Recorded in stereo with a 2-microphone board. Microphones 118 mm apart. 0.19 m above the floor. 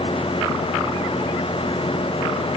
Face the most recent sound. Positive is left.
No sound to turn to.